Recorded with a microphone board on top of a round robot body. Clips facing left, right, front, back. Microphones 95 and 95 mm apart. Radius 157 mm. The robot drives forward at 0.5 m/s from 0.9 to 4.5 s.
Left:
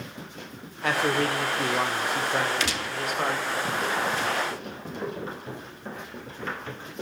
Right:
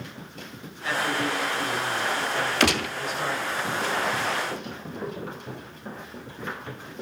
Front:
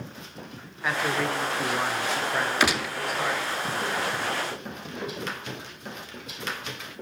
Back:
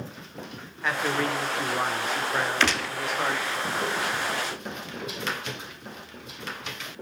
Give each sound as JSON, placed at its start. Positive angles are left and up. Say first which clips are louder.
{"t": 0.8, "sound": "a man speaking", "louder": "left 2 dB, even", "azimuth_deg": 85, "distance_m": 2.5}
{"t": 2.6, "sound": "a gunshot", "louder": "right 6 dB, front 1 dB", "azimuth_deg": -75, "distance_m": 1.1}